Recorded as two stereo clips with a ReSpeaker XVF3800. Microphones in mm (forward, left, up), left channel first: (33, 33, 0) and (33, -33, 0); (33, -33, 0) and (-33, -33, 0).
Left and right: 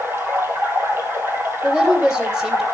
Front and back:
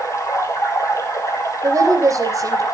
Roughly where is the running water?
Ahead right.